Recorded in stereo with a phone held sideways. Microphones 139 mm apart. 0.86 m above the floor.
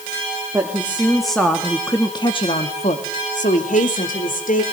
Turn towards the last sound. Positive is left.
turn(degrees=75)  # may be behind; listen again after turning